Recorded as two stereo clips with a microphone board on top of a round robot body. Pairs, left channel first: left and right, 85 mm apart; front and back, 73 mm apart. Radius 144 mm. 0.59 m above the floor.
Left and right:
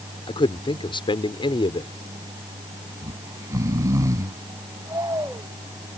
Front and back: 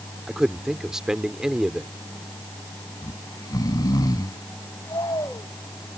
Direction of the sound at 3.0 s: 35° right.